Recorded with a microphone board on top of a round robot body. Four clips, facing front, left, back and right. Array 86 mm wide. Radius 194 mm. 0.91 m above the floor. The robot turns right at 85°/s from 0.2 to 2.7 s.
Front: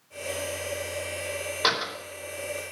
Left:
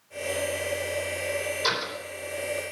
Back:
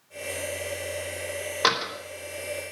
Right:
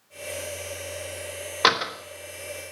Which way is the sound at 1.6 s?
105° right.